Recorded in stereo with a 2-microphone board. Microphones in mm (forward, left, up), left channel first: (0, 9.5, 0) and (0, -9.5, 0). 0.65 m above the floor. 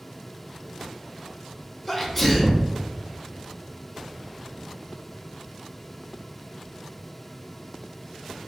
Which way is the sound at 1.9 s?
15° left (ahead or behind).